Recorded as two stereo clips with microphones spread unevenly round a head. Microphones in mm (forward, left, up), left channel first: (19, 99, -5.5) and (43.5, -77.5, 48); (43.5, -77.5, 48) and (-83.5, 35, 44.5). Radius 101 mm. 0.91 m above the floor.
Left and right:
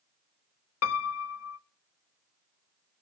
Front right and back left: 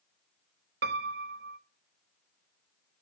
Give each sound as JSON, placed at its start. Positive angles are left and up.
{"t": 0.8, "sound": "a piano", "azimuth_deg": 100, "distance_m": 0.5}